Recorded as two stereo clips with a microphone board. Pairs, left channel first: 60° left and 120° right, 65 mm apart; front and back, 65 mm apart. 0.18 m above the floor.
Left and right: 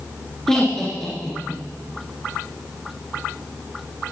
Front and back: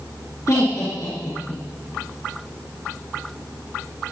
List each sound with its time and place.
0.5 s laughter: 20° right, 3 m